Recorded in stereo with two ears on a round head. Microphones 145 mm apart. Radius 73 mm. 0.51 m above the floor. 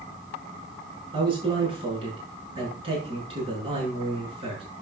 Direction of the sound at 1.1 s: 35° right (ahead or behind).